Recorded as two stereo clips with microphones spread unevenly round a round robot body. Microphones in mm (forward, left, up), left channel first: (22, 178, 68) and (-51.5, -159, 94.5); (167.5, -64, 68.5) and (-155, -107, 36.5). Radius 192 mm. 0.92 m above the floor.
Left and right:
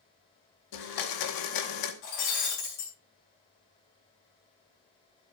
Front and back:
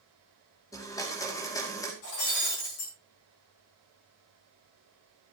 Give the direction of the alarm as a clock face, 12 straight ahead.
I don't hear an alarm.